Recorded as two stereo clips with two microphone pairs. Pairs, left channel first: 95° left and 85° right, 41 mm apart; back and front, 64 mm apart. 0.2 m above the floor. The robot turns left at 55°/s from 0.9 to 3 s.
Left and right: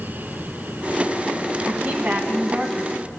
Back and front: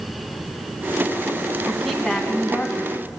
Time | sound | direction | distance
1.7 | a woman speaking | 75° right | 1.3 m